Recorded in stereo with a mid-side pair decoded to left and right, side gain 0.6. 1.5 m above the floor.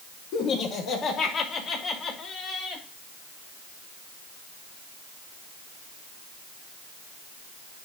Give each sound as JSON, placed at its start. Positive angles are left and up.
{"t": 0.3, "sound": "laughter", "azimuth_deg": 60, "distance_m": 4.0}